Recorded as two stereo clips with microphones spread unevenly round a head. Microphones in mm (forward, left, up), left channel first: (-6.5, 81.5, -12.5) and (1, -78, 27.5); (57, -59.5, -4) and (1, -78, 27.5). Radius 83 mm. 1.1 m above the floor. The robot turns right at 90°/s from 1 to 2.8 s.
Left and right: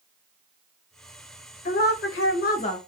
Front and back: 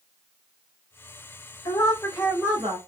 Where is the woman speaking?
50° left, 0.9 m; by 2.8 s 150° left, 0.9 m.